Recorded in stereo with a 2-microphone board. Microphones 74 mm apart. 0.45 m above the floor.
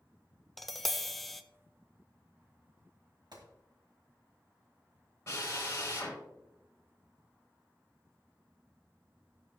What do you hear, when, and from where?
0.6 s tapping: centre (ahead or behind), 0.5 m
3.3 s a gunshot: 75° right (ahead or behind), 2 m
5.3 s a drill: 35° left (ahead or behind), 4.5 m